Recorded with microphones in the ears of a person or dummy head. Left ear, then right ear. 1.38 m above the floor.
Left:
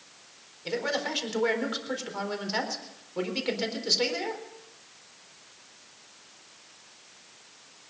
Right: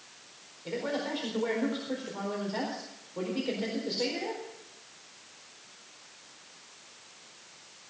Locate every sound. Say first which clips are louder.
0.7 s a man speaking: left 3 dB; 55° left (ahead or behind), 4.5 m